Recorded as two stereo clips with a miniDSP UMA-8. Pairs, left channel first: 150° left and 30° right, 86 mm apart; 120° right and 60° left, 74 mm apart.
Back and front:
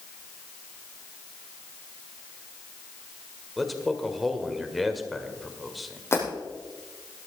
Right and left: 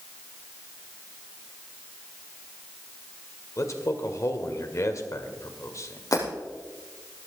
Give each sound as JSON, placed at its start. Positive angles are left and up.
{"t": 3.6, "sound": "a man speaking", "azimuth_deg": -120, "distance_m": 1.9}
{"t": 6.1, "sound": "breaking glass", "azimuth_deg": -155, "distance_m": 5.5}